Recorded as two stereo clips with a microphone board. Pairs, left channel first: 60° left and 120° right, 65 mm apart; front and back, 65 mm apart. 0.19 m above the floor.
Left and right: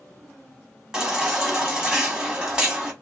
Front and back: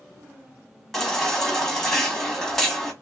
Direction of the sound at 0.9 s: 75° right.